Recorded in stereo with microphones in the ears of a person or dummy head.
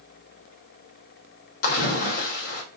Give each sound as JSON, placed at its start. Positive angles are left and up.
{"t": 1.6, "sound": "a splash", "side_deg": 50, "distance_m": 0.9}